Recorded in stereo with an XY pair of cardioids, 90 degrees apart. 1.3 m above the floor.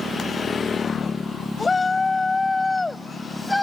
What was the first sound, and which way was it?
A shout, 35° left.